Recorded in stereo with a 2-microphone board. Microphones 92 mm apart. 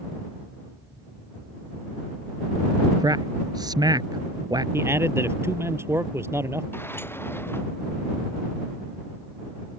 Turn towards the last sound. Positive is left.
turn(degrees=25)  # may be behind; listen again after turning